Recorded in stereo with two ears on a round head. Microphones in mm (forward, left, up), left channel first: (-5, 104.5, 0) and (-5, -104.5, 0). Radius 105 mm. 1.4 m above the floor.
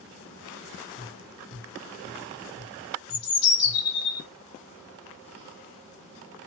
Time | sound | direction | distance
1.0 | tapping | 75° right (ahead or behind) | 1.2 m
3.1 | a bird | 75° left (ahead or behind) | 1.0 m